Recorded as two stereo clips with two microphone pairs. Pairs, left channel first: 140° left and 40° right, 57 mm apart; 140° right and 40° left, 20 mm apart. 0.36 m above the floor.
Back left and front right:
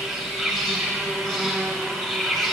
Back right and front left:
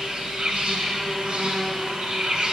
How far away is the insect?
About 1.2 m.